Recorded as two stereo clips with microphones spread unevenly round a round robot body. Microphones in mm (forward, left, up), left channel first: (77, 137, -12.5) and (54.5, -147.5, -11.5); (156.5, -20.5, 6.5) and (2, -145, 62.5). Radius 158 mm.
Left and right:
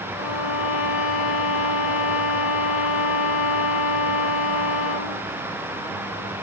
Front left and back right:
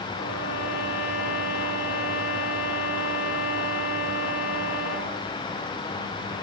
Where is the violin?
80° left, 1.4 m.